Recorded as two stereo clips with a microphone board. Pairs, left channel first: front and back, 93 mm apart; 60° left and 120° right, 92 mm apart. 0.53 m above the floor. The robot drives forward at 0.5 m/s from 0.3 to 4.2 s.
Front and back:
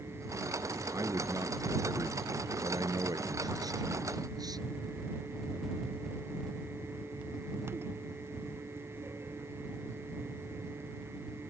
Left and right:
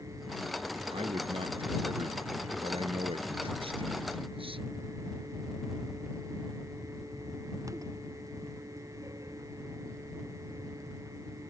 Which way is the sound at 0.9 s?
125° right.